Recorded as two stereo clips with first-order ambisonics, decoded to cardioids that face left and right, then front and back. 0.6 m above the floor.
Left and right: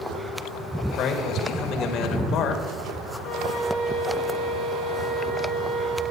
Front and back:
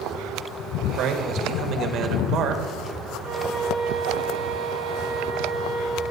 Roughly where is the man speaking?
Behind left.